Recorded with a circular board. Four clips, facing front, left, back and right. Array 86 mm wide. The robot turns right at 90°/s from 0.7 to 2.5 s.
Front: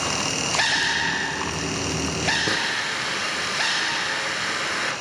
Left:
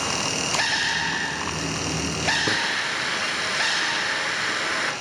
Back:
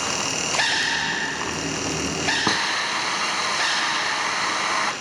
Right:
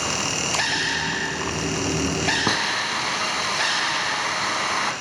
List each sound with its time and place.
2.5 s a hiss: 135° right, 3 m; by 4.9 s 130° right, 3 m